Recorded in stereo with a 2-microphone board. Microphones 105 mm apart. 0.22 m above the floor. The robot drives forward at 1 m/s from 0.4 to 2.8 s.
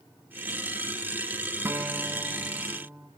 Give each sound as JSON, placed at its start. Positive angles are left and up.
{"t": 1.6, "sound": "a guitar", "side_deg": -25, "distance_m": 0.8}